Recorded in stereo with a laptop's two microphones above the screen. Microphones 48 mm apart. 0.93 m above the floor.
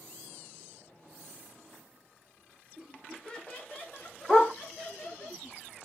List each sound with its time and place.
2.8 s laughter: 10° right (ahead or behind), 1.0 m; by 5.3 s 50° left (ahead or behind), 2.0 m
4.3 s a dog barking: 20° left (ahead or behind), 1.0 m